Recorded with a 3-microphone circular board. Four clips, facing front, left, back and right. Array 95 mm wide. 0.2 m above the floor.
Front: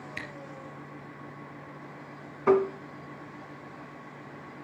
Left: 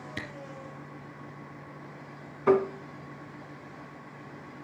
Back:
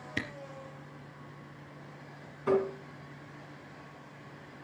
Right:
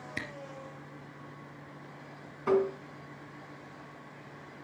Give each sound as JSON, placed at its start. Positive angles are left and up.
{"t": 0.2, "sound": "a camera shutter", "azimuth_deg": -170, "distance_m": 3.5}
{"t": 2.5, "sound": "tapping", "azimuth_deg": 30, "distance_m": 2.5}